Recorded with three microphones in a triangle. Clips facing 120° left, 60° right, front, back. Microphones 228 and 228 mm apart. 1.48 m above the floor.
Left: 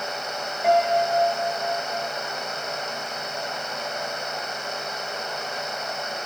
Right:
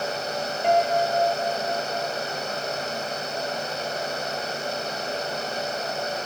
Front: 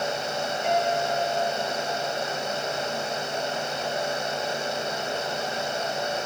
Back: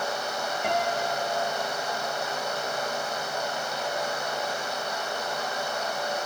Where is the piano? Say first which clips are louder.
Left 1 dB, front 3 dB; 155° right, 4.5 m.